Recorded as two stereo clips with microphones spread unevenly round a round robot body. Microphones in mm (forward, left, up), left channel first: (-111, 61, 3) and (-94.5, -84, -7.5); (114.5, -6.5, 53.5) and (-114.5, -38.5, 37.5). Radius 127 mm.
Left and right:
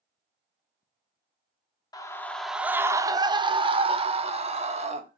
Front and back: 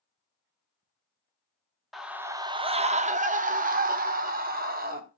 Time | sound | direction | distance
1.9 | a scream | 110° left | 0.9 m